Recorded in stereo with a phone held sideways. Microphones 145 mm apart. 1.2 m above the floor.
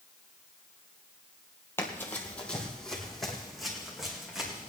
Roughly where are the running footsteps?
Centre.